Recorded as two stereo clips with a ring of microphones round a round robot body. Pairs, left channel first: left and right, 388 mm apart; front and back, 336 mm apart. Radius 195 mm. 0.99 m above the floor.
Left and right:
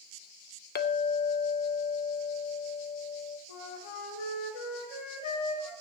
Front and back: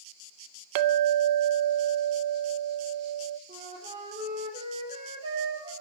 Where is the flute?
105° left, 4 m.